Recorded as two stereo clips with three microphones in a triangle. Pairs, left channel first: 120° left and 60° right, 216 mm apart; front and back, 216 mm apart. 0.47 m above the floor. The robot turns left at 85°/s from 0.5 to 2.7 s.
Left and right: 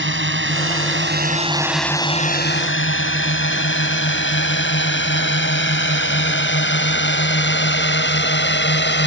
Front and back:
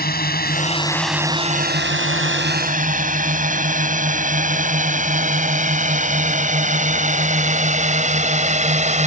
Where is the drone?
40° right; by 9.1 s 130° left.